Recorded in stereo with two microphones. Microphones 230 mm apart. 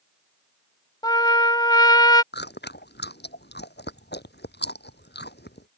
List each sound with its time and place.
1.0 s a trumpet: 20° left (ahead or behind)
2.3 s chewing: 50° left (ahead or behind)